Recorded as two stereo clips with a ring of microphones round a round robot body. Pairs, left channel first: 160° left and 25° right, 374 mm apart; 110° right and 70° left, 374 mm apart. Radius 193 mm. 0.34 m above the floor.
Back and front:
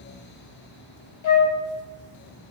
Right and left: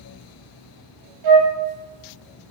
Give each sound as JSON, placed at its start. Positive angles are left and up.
{"t": 1.2, "sound": "a flute", "azimuth_deg": 110, "distance_m": 0.7}